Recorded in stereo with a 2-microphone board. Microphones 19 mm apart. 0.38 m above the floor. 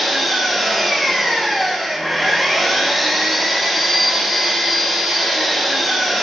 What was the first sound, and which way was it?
An engine running, centre (ahead or behind).